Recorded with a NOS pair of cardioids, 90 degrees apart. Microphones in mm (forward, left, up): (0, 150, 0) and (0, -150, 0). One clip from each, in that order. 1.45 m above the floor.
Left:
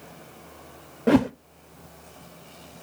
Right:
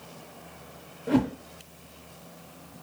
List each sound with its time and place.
1.1 s a whoosh: 60° left, 0.5 m